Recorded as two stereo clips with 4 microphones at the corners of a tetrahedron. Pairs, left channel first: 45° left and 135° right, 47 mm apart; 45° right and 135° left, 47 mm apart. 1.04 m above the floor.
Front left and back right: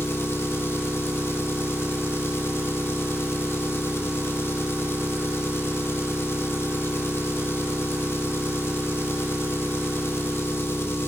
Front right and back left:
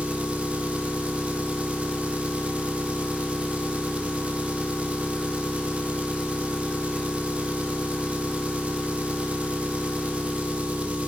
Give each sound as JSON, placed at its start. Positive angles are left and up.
{"t": 0.0, "sound": "an engine running", "azimuth_deg": 75, "distance_m": 0.8}